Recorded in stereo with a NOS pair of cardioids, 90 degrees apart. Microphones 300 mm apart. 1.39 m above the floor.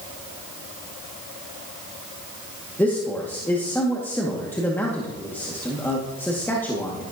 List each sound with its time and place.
2.8 s a man speaking: 5° left, 2 m